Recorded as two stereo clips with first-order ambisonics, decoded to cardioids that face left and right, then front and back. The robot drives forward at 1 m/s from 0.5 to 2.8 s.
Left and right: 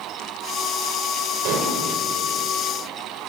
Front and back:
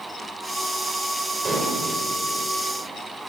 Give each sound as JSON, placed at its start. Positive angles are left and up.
{"t": 1.4, "sound": "dishes clattering", "azimuth_deg": -110, "distance_m": 4.5}